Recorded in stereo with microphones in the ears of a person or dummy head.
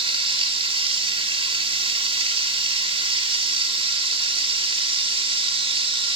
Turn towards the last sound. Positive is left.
turn(degrees=-25)  # may be behind; listen again after turning